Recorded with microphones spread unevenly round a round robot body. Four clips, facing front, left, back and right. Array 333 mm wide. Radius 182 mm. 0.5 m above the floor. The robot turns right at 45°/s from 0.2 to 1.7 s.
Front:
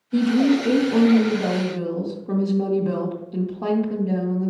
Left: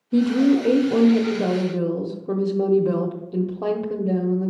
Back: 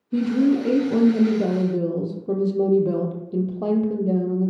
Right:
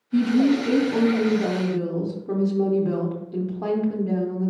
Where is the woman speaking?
85° left, 0.8 m; by 4.5 s 155° left, 0.8 m.